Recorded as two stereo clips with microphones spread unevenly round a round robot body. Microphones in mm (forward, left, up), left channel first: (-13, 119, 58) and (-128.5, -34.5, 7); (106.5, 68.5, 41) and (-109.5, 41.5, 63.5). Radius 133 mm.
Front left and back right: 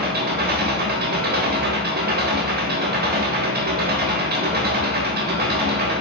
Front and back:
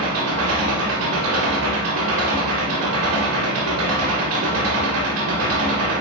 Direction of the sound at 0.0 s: 155° right.